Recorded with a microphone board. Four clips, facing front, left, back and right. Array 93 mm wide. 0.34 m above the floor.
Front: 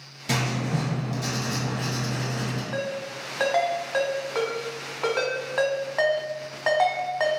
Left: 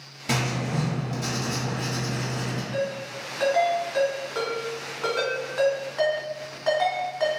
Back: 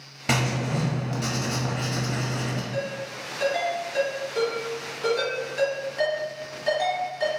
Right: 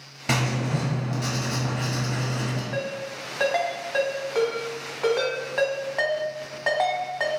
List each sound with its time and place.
0.3 s writing: 155° right, 1.1 m
2.7 s a ringtone: 35° right, 1.4 m